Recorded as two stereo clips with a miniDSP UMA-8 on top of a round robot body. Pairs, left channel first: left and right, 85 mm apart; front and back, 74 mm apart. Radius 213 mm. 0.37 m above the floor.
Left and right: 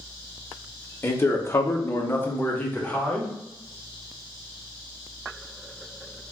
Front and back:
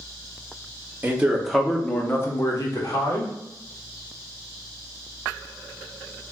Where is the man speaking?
135° left, 0.9 m; by 3.3 s 15° left, 1.5 m.